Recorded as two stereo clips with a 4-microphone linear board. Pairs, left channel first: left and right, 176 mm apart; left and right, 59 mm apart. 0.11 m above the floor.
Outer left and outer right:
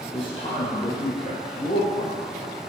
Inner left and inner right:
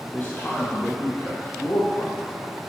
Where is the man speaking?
30° left (ahead or behind), 3 m.